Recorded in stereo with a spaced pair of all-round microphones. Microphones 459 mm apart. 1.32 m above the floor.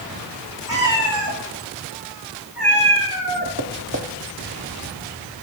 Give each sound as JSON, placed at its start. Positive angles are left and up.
{"t": 0.7, "sound": "a cat meowing", "side_deg": -45, "distance_m": 4.0}
{"t": 3.6, "sound": "tapping", "side_deg": -30, "distance_m": 0.9}